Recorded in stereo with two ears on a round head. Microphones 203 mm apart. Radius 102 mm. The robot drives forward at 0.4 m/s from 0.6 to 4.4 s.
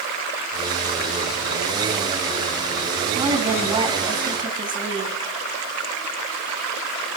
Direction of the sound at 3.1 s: 20° right (ahead or behind).